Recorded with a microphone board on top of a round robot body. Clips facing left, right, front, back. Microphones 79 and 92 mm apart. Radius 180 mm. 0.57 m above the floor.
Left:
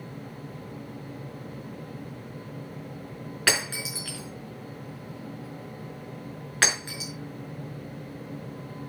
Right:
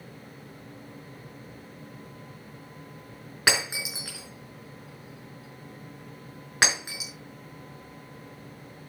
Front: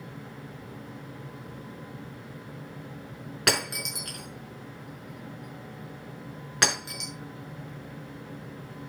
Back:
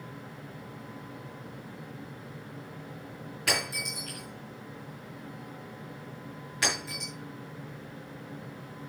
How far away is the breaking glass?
About 5 m.